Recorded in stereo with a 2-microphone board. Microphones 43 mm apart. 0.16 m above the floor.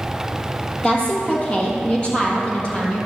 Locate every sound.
0.8 s a woman speaking: 25° left (ahead or behind), 4 m